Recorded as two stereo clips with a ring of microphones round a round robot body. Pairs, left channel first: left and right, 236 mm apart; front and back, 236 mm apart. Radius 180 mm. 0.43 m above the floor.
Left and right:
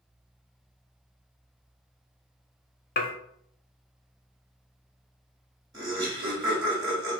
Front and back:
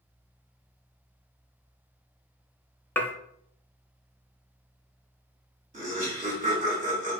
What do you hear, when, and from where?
3.0 s dishes clattering: 80° left, 0.8 m
5.7 s laughter: 150° right, 1.5 m